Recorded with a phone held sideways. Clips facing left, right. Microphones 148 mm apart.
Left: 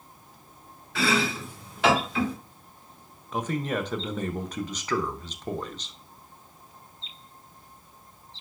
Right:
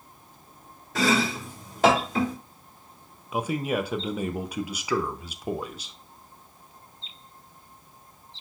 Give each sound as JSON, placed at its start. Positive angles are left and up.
{"t": 0.9, "sound": "chopping", "side_deg": -40, "distance_m": 1.6}
{"t": 3.3, "sound": "a man speaking", "side_deg": -10, "distance_m": 0.5}